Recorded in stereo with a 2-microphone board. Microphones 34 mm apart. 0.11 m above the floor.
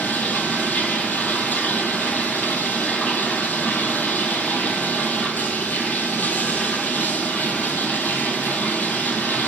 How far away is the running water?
About 0.8 m.